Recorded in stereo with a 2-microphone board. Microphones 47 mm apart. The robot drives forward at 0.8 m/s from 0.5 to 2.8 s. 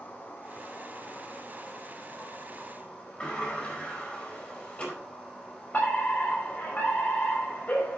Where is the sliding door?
25° left (ahead or behind), 4.5 m.